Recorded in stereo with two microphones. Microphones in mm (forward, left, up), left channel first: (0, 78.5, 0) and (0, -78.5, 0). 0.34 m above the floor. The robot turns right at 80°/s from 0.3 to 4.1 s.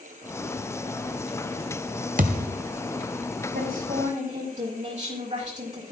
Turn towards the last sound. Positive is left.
turn(degrees=-50)